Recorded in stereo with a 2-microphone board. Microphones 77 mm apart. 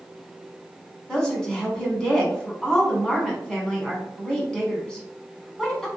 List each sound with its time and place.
1.1 s a woman speaking: 10° left (ahead or behind), 1.2 m